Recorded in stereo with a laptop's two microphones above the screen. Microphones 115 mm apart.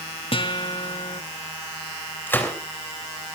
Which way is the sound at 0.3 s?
55° left (ahead or behind).